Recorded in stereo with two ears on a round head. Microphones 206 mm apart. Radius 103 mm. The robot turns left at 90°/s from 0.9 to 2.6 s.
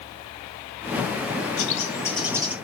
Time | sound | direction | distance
1.6 | a bird | 60° left | 1.8 m